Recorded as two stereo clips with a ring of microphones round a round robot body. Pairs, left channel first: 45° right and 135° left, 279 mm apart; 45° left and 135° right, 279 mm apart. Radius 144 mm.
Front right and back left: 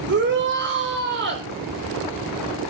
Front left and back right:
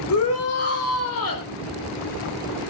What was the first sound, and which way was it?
A shout, 85° left.